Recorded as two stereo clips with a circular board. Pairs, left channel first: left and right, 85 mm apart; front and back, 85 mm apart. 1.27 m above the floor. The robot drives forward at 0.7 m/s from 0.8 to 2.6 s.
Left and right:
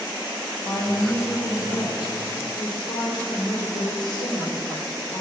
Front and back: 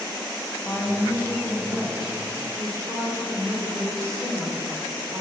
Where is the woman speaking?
55° left, 1.2 m; by 5.2 s 125° left, 1.1 m.